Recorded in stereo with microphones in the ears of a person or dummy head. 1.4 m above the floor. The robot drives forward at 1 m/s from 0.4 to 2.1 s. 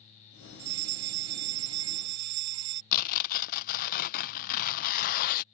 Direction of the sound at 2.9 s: 45° left (ahead or behind).